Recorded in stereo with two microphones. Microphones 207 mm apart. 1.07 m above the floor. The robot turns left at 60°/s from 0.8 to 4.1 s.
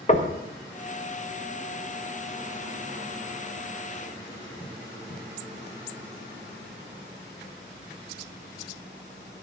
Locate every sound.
0.1 s knocking: 35° left (ahead or behind), 1.4 m